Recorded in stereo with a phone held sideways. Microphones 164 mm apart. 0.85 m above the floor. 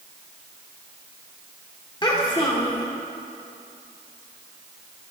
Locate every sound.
2.0 s a child speaking: 30° left (ahead or behind), 1.1 m